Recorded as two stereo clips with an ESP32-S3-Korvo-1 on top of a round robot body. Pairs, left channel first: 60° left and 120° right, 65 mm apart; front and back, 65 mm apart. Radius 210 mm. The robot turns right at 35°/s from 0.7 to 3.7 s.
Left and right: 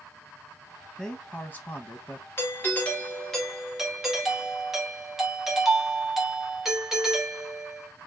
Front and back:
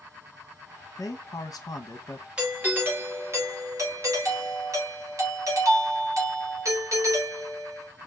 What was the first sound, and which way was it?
A man speaking, 15° right.